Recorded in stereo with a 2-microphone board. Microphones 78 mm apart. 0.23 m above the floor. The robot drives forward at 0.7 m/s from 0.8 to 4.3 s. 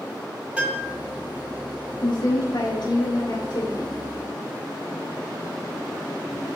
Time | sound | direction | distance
0.6 | a piano | 15° right (ahead or behind) | 1.6 m
2.0 | a woman speaking | 70° left (ahead or behind) | 3.5 m